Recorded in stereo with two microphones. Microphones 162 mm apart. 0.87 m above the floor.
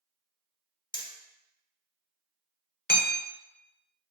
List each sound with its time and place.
0.9 s hammering: 30° left (ahead or behind), 0.5 m
2.9 s hammering: 65° left (ahead or behind), 0.7 m